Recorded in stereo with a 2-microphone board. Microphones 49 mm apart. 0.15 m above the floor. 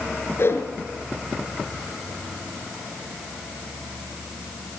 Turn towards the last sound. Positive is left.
turn(degrees=55)  # may be behind; listen again after turning